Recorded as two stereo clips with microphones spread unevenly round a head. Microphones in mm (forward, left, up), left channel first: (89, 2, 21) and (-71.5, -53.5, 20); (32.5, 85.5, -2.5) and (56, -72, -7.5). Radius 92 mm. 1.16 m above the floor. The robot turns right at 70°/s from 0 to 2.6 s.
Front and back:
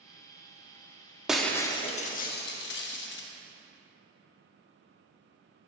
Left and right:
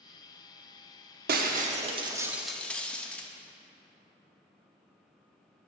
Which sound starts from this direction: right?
Breaking glass, at 1.3 s.